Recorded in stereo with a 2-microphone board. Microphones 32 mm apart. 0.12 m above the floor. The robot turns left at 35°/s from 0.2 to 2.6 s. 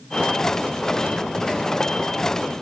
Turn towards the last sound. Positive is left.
No sound to turn to.